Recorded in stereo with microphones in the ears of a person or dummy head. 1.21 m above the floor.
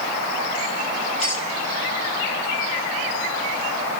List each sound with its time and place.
1.2 s a clink: 45° left (ahead or behind), 7.5 m